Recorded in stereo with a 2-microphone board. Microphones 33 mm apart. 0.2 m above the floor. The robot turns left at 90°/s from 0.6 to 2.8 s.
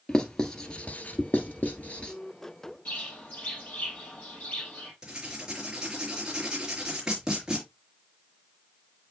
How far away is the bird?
About 3.5 m.